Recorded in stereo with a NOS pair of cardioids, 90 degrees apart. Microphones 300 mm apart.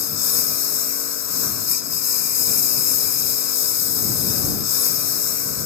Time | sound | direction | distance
0.0 | a lawn mower | 60° left | ?